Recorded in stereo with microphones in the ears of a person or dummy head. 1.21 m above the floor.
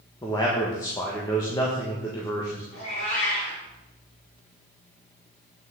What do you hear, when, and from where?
0.2 s a man speaking: 25° left (ahead or behind), 1.4 m
2.7 s a cat meowing: 55° left (ahead or behind), 4.5 m